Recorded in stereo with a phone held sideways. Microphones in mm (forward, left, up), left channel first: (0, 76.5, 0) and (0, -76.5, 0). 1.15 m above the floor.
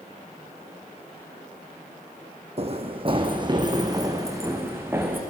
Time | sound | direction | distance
2.6 | running footsteps | 45° right (ahead or behind) | 2 m